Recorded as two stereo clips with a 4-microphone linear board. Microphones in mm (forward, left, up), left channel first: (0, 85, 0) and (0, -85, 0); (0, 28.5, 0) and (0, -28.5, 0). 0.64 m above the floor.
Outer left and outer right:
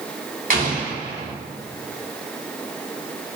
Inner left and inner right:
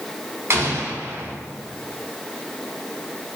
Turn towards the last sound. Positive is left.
turn(degrees=-50)  # may be behind; listen again after turning